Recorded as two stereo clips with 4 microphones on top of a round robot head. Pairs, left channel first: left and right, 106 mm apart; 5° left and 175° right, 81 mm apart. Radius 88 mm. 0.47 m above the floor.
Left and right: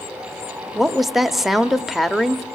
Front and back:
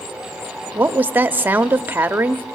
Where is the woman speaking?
175° right, 0.9 m.